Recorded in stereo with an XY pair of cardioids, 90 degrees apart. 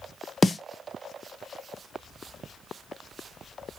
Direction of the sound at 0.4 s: 25° left.